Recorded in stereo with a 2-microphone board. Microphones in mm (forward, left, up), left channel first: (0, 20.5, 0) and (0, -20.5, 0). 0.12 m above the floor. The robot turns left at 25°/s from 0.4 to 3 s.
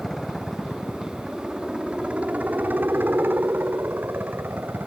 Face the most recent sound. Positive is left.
turn(degrees=-60)